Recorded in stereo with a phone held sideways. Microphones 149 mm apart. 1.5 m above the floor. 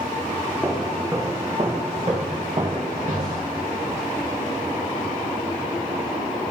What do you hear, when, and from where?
0.6 s footsteps: 10° right (ahead or behind), 2.0 m; by 3.5 s 60° right (ahead or behind), 3 m